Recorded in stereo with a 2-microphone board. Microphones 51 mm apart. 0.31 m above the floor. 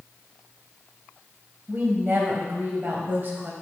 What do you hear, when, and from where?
1.7 s a woman speaking: 45° right (ahead or behind), 1.8 m